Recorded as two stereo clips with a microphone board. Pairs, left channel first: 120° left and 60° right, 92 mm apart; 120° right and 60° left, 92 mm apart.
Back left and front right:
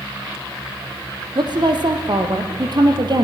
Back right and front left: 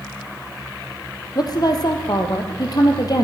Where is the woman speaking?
85° right, 3 m.